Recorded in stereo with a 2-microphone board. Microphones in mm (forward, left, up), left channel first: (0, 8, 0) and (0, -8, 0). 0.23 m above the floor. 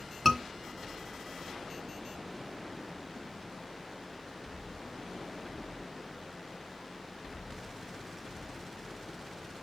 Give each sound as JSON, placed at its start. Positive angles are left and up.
{"t": 0.2, "sound": "a scream", "side_deg": -10, "distance_m": 2.5}